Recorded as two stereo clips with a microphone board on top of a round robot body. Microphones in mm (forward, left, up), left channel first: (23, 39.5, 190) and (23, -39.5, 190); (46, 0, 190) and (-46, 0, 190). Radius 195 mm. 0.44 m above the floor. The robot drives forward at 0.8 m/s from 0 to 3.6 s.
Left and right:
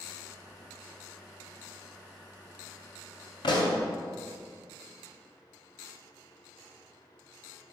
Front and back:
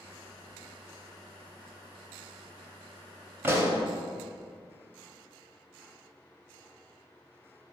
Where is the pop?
110° left, 0.6 m; by 3.8 s 120° left, 0.7 m.